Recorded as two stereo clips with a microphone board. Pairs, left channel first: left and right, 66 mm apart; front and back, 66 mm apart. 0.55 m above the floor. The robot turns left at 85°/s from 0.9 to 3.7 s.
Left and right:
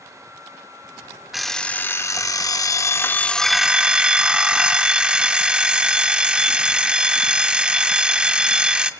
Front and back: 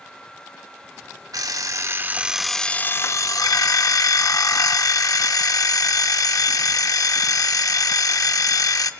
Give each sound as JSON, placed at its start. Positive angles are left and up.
{"t": 1.3, "sound": "an alarm clock", "azimuth_deg": -175, "distance_m": 0.6}